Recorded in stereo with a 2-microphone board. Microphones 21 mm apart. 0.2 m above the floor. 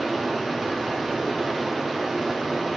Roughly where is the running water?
Centre.